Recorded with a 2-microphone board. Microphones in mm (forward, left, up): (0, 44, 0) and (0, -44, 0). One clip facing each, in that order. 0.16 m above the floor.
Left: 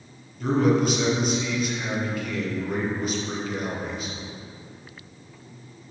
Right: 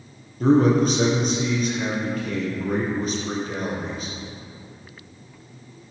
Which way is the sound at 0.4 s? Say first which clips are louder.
Right 4 dB; 40° right (ahead or behind).